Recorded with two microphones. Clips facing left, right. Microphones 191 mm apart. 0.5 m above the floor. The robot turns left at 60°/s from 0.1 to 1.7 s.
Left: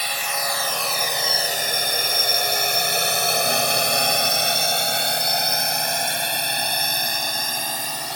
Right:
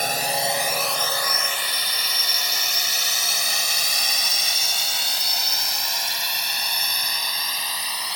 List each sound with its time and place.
0.0 s a drone: 45° right (ahead or behind); by 8.2 s 45° left (ahead or behind)